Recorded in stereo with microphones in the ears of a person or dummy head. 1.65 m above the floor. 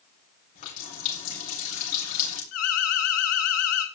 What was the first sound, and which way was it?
A running tap, 55° left (ahead or behind).